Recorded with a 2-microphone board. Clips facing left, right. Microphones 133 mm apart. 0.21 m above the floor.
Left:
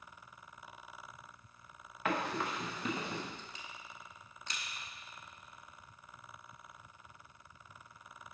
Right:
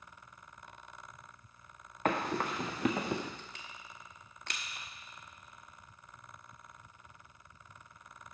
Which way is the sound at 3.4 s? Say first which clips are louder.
Even; 75° right (ahead or behind).